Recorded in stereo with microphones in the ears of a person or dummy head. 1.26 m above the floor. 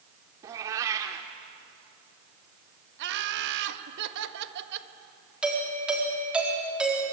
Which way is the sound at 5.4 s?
Centre (ahead or behind).